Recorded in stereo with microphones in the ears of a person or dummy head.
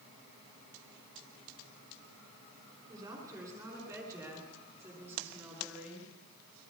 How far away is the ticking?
No ticking in this recording.